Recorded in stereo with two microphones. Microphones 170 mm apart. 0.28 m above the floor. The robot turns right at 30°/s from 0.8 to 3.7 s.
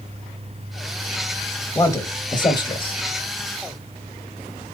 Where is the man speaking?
35° left, 1.0 m; by 3.0 s 70° left, 1.0 m.